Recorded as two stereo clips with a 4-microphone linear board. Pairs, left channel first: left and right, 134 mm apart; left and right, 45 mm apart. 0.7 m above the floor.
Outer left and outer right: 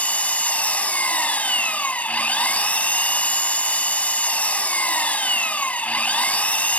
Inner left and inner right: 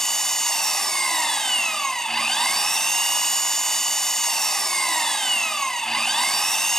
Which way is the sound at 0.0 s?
10° left (ahead or behind).